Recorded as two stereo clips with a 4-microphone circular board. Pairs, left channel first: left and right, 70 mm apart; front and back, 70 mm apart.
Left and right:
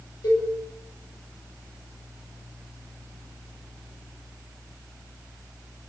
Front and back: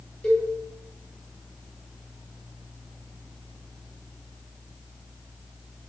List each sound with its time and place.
0.2 s a cowbell: 75° left, 1.5 m